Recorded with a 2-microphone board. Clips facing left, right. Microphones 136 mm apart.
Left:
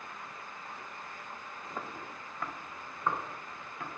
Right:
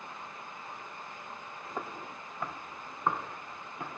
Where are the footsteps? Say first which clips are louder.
Right 3 dB; 15° right (ahead or behind), 1.2 m; by 3.9 s 20° right (ahead or behind), 3.5 m.